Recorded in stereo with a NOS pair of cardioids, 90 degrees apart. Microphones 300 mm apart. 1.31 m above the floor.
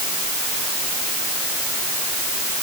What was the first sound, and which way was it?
Only background noise.